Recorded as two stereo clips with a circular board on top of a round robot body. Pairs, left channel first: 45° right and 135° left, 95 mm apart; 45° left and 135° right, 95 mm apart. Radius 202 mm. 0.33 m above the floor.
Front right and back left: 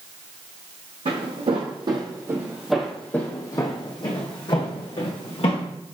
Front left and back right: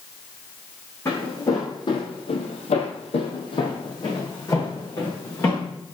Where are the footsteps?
110° left, 1.5 m; by 5.7 s 20° right, 2.5 m.